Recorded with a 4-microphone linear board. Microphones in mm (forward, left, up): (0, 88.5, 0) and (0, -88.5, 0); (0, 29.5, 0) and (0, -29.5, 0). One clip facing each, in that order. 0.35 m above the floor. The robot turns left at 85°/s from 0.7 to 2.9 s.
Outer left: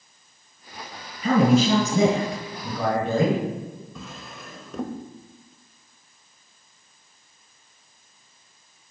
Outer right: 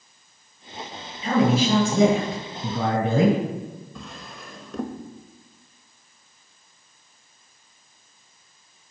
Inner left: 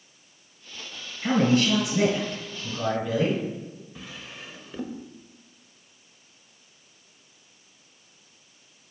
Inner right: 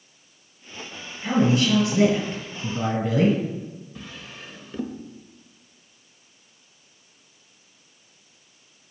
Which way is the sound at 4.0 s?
Centre (ahead or behind).